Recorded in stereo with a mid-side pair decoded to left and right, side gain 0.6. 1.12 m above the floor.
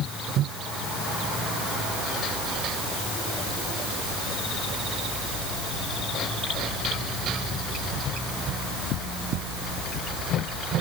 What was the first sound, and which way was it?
Only background noise.